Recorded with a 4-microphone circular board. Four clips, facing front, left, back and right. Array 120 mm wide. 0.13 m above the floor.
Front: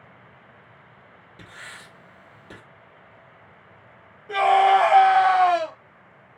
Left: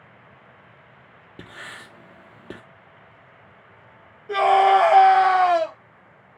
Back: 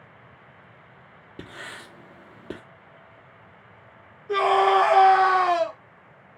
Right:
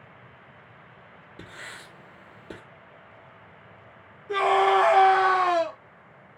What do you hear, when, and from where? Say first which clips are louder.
1.4 s writing: left 3 dB, back 4 dB; 140° left, 1.0 m
4.3 s a scream: left 5 dB, front 2 dB; 65° left, 2 m